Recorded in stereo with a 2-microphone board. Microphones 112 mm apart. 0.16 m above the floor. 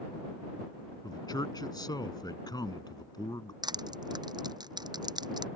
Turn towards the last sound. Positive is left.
turn(degrees=-40)  # may be behind; listen again after turning